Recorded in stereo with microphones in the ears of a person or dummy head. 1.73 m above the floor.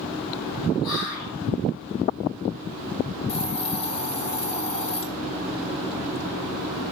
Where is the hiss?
40° left (ahead or behind), 1.1 m.